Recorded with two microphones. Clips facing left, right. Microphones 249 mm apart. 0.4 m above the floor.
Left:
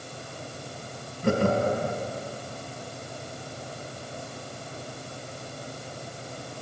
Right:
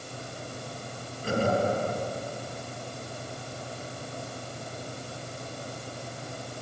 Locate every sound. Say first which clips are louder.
1.2 s laughter: left 3 dB; 70° left (ahead or behind), 2.5 m